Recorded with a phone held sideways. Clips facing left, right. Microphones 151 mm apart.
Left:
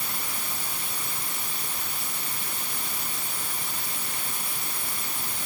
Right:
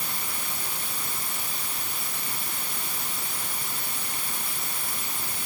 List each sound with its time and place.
Only background noise.